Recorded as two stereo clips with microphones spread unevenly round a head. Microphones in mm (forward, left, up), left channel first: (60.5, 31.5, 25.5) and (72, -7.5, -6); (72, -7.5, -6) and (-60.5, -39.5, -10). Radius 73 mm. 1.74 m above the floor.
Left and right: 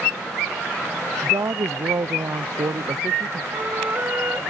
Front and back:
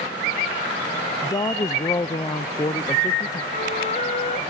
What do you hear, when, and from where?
1.2 s a woman speaking: 40° right
3.5 s a flute: 25° right